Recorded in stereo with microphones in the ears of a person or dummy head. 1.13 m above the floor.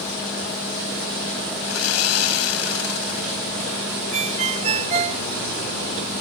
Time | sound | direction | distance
1.7 | sawing | 80° left | ?
4.1 | a ringtone | 35° right (ahead or behind) | ?